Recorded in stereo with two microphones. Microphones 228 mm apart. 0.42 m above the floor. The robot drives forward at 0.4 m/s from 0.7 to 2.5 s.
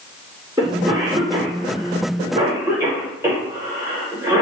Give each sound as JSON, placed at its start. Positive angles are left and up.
{"t": 0.6, "sound": "a cough", "side_deg": -20, "distance_m": 0.8}